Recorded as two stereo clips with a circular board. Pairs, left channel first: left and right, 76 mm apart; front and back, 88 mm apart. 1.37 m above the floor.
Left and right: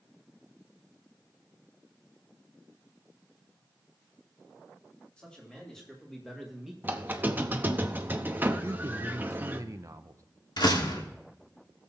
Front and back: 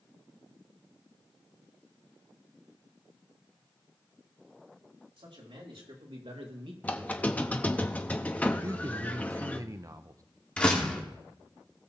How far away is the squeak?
About 0.7 m.